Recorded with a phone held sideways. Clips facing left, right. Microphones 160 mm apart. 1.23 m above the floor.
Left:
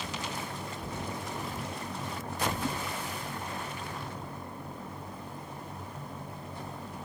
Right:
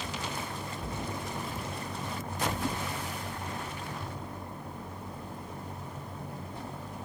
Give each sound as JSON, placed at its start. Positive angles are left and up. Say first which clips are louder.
{"t": 0.8, "sound": "a cupboard door", "louder": "right 1 dB", "side_deg": 5, "distance_m": 2.0}